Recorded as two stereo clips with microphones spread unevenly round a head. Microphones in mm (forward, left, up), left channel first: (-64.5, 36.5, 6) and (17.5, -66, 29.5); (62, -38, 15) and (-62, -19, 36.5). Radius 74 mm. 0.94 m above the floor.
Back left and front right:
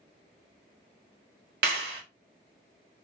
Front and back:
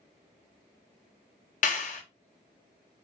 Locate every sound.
1.6 s a clap: 35° right, 1.0 m